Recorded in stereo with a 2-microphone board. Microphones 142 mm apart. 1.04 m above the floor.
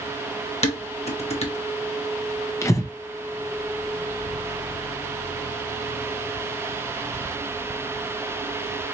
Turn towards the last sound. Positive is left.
turn(degrees=20)  # may be behind; listen again after turning